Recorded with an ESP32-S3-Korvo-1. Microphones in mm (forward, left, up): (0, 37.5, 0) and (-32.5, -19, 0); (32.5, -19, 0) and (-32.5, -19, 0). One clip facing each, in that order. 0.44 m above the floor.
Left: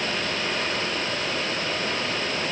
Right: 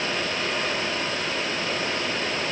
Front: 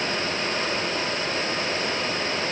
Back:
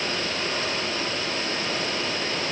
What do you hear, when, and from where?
Only background noise.